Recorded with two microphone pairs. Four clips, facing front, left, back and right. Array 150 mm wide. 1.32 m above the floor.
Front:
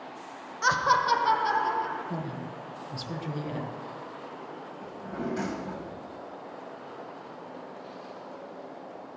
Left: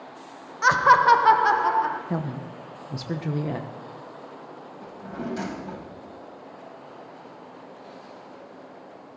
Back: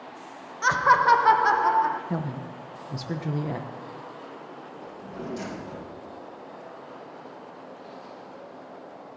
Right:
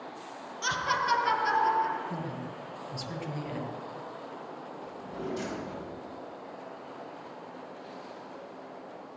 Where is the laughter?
90° left, 0.6 m; by 2.0 s 130° left, 1.5 m.